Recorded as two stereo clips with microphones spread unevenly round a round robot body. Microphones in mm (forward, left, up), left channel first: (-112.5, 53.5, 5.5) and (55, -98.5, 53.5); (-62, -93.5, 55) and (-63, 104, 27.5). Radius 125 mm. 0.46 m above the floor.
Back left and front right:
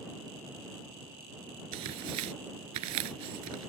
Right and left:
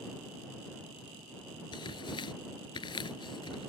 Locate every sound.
1.7 s tearing paper: 20° right